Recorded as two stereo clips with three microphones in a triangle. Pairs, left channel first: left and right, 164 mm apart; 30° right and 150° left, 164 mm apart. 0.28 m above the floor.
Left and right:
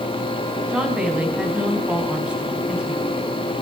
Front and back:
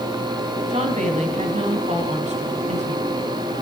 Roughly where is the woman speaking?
Behind.